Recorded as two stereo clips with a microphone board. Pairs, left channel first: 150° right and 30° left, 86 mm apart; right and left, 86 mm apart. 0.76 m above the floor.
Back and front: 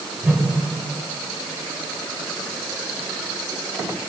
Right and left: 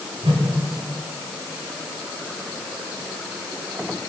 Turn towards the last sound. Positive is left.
turn(degrees=105)